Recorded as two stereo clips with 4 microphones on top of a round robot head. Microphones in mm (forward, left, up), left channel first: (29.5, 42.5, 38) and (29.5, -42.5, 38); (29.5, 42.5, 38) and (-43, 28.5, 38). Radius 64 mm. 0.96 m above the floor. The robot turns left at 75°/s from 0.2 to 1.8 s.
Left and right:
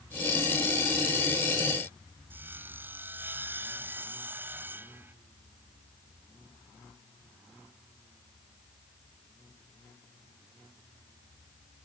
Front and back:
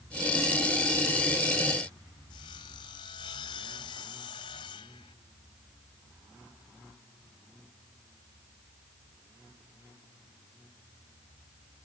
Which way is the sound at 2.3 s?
25° right.